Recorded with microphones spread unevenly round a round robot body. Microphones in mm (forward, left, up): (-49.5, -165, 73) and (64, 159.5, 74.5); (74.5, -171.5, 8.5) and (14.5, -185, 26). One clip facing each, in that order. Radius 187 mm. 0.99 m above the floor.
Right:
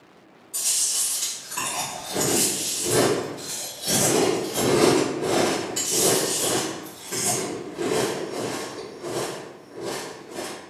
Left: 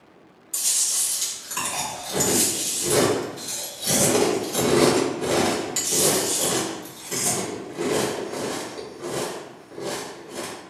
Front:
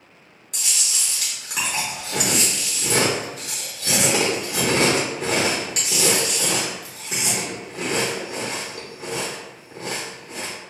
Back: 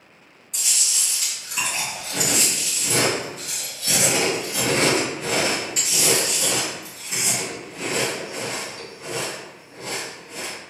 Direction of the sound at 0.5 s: 15° left.